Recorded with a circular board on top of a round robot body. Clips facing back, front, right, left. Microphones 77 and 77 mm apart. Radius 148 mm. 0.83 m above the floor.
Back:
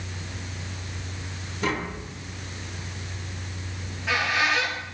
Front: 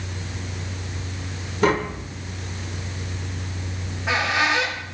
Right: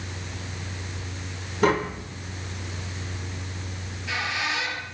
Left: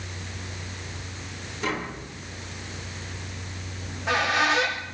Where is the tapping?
45° right, 1.6 m.